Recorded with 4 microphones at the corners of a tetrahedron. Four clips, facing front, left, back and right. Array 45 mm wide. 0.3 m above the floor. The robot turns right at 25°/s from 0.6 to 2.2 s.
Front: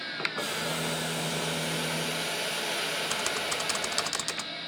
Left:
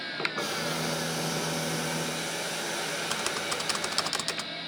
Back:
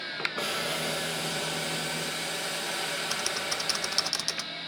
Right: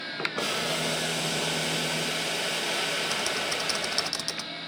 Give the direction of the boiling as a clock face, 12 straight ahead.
4 o'clock.